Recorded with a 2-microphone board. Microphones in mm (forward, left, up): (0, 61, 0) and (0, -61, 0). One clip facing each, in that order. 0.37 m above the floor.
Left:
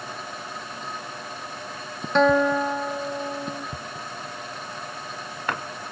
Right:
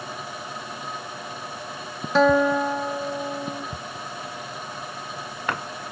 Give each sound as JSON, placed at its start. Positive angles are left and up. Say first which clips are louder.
{"t": 2.1, "sound": "a guitar", "louder": "right 1 dB", "side_deg": 0}